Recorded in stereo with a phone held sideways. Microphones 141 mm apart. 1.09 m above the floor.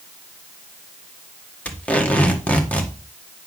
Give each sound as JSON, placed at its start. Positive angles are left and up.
{"t": 1.6, "sound": "tape being pulled", "side_deg": 10, "distance_m": 1.5}